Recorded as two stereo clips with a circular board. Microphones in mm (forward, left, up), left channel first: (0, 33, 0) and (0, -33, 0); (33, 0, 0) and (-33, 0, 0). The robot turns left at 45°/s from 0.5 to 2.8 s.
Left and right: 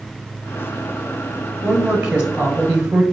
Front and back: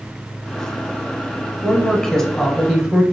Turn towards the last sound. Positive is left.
turn(degrees=-90)